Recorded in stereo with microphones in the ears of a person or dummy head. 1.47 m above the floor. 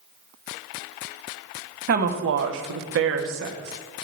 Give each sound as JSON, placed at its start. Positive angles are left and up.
{"t": 1.9, "sound": "a woman speaking", "side_deg": -50, "distance_m": 0.8}